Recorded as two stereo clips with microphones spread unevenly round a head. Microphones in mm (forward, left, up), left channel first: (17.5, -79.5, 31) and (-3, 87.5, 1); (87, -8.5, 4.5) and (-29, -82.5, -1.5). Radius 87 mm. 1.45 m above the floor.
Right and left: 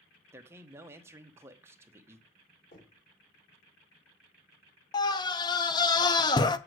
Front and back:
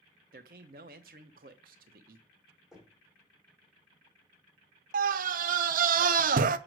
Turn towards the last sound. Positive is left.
turn(degrees=-150)